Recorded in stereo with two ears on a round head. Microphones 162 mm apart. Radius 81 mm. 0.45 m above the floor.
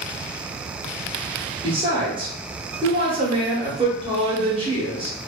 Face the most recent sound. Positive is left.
turn(degrees=-25)  # may be behind; listen again after turning